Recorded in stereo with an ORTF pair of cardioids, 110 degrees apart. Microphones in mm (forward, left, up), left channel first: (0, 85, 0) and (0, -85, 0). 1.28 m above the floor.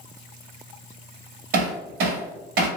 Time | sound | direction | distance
1.5 | hammering | 70° right | 1.4 m